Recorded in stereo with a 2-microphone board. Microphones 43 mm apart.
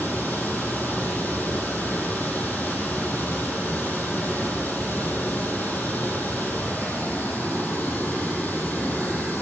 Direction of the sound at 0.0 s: 40° left (ahead or behind).